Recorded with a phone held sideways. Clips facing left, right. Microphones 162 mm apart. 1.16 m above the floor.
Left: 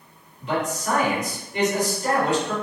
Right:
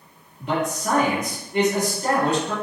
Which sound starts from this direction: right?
A man speaking, at 0.4 s.